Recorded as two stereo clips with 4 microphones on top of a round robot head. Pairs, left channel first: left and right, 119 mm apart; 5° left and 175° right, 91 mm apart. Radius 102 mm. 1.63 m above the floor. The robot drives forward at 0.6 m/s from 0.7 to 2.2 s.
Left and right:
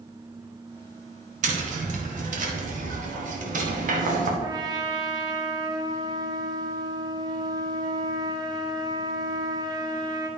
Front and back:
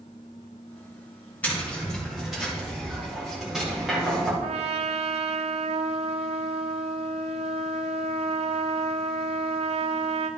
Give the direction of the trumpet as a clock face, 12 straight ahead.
5 o'clock.